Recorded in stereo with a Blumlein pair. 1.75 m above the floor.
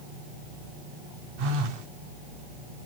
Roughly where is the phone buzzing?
Ahead right.